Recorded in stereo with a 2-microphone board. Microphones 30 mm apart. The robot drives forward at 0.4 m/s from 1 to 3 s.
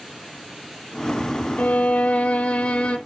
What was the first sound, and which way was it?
A violin, 50° left (ahead or behind).